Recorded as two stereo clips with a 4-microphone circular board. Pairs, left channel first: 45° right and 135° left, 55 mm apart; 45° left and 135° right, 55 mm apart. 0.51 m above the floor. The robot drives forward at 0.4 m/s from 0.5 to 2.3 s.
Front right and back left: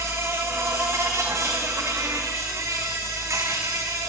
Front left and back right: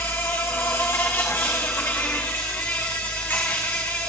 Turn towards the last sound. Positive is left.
turn(degrees=100)